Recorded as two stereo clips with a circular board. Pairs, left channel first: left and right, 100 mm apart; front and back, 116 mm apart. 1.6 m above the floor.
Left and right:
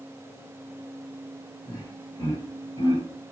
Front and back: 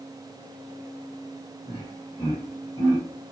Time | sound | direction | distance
1.7 | laughter | 40° left | 1.8 m